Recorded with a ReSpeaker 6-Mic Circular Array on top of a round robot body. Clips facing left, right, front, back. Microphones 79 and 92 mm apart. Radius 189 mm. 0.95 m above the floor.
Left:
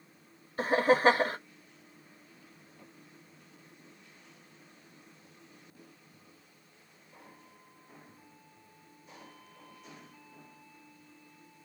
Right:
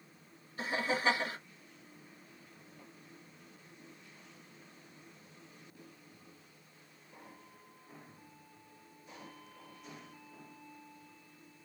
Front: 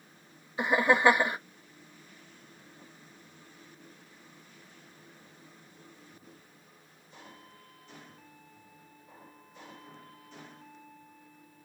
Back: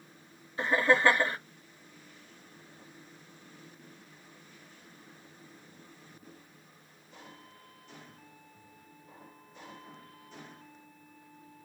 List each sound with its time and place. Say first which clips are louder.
0.6 s laughter: left 9 dB, front 1 dB; 70° left, 0.7 m